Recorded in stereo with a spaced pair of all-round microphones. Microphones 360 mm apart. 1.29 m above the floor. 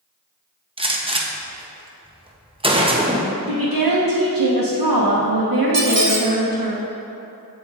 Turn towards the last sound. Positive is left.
turn(degrees=-50)  # may be behind; listen again after turning